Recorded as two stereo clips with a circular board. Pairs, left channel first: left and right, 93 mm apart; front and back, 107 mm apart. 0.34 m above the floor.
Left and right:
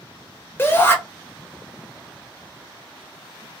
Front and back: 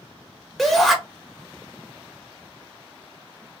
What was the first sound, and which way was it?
A shout, 85° left.